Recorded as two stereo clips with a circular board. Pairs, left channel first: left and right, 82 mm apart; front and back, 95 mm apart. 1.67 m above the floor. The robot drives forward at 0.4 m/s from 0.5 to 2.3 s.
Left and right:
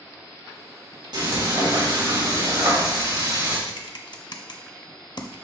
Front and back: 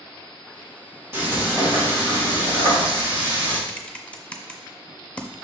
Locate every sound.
1.1 s frying: 115° right, 3.5 m; by 3.6 s 120° right, 4 m
3.7 s typing on a keyboard: 75° left, 0.7 m